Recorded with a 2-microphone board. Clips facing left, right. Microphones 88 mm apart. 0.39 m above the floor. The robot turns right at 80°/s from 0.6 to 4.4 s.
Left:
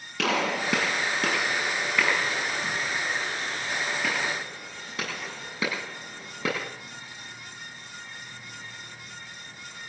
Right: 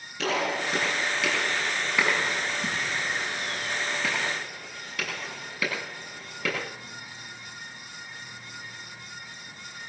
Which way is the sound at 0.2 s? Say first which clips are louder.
Left 1 dB; 80° left.